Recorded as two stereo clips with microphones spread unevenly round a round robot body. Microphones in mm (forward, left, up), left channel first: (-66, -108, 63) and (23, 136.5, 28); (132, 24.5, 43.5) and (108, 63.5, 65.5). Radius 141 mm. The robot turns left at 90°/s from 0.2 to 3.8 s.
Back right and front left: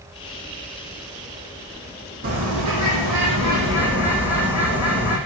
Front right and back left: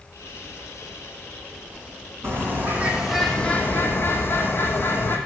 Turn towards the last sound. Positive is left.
turn(degrees=-15)